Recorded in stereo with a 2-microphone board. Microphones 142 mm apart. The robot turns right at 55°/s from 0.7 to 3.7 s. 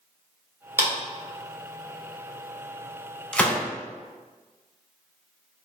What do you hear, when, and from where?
0.8 s a clap: 20° right (ahead or behind), 1.6 m; by 0.9 s 15° right (ahead or behind), 1.6 m
3.3 s a gunshot: 5° left (ahead or behind), 0.6 m; by 3.6 s 15° left (ahead or behind), 0.6 m